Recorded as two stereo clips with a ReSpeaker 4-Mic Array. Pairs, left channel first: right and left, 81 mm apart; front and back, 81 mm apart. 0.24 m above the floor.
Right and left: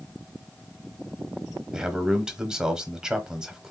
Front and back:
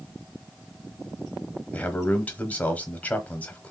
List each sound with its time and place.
1.7 s a man speaking: 25° left, 1.0 m